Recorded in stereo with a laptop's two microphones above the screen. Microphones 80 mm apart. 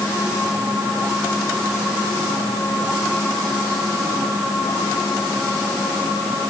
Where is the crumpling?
I don't hear crumpling.